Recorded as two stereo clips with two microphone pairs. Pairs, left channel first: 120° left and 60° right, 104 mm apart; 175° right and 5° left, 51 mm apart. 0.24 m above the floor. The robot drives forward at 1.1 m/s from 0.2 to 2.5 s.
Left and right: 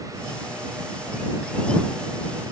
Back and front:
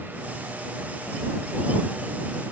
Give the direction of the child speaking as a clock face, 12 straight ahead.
I don't hear a child speaking.